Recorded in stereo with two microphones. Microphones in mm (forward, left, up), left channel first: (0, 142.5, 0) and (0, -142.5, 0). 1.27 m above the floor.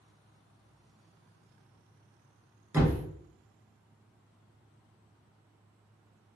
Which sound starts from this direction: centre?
A thud, at 2.7 s.